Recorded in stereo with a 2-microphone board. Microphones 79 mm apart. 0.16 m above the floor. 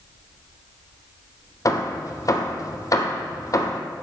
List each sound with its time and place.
1.6 s hammering: 45° left (ahead or behind), 1.6 m